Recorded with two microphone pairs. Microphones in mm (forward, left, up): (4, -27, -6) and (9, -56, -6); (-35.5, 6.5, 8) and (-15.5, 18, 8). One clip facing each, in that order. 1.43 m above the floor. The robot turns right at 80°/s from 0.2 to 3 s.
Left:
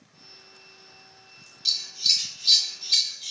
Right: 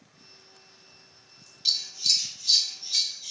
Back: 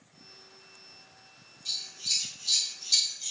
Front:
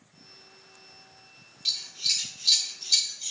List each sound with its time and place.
1.6 s scissors: straight ahead, 0.7 m; by 3.3 s 110° left, 0.7 m